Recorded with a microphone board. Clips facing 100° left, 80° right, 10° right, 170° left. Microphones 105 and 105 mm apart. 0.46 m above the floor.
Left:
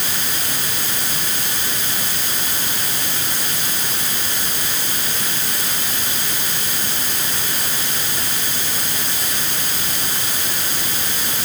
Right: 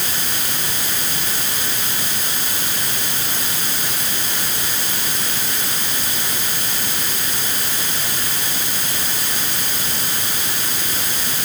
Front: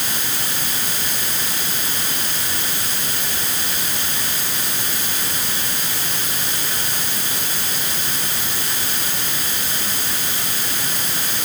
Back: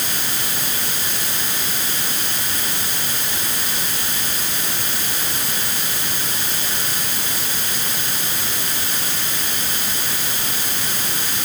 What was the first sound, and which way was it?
Only background noise.